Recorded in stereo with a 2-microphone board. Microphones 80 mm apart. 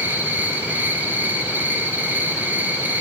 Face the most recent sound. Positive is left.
turn(degrees=-25)  # may be behind; listen again after turning